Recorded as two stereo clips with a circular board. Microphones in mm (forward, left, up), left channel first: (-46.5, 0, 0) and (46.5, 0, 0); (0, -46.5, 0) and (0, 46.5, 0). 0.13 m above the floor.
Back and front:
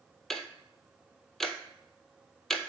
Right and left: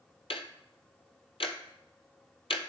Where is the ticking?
95° right, 0.6 m.